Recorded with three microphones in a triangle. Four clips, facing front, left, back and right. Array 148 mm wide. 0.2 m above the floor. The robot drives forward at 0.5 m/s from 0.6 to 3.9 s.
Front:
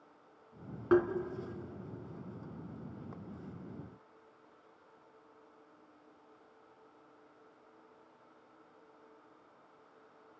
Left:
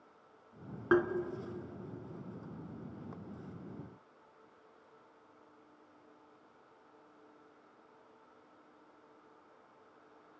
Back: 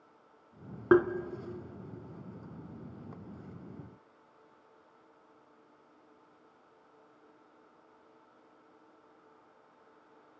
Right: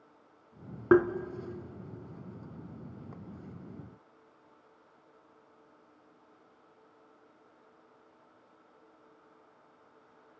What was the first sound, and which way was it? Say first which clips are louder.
Tapping: right 6 dB, back 4 dB; 135° right.